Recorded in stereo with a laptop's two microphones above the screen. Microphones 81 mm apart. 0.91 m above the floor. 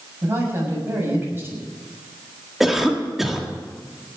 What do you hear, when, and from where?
0.2 s a man speaking: 30° right (ahead or behind), 6.5 m
2.6 s a cough: centre (ahead or behind), 1.8 m